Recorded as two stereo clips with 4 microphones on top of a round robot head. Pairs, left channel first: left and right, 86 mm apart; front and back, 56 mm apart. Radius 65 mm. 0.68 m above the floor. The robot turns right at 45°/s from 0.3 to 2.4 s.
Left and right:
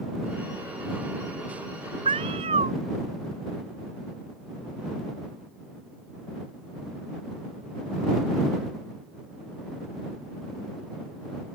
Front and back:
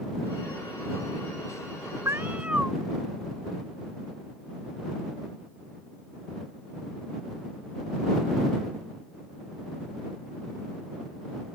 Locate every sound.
2.0 s a cat meowing: 120° right; by 2.7 s 105° right